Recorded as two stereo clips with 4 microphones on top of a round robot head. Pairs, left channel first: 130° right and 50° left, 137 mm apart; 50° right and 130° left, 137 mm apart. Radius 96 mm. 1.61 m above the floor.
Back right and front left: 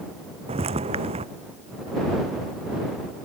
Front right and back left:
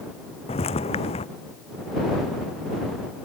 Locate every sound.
0.5 s footsteps: straight ahead